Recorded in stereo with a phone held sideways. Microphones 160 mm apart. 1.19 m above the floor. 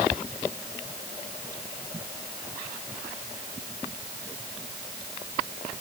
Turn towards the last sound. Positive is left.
No sound to turn to.